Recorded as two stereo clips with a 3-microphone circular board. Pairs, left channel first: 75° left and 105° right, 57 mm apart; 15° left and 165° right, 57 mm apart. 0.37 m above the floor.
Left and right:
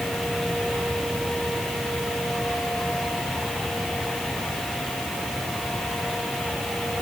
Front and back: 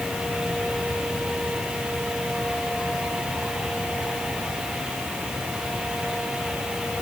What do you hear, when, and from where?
Only background noise.